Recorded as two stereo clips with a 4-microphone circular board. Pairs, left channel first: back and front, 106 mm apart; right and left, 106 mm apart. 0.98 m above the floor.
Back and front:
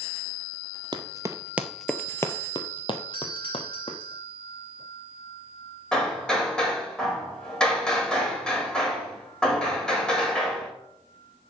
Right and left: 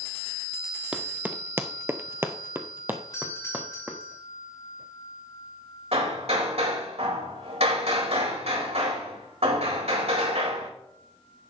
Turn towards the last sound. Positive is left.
turn(degrees=100)